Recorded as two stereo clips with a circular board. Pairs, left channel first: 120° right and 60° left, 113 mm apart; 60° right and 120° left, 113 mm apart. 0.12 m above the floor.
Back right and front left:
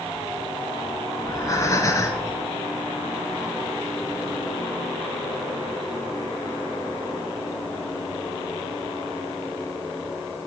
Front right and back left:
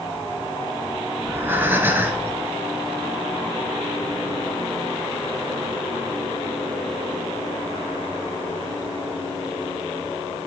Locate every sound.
1.2 s breathing: 175° right, 0.9 m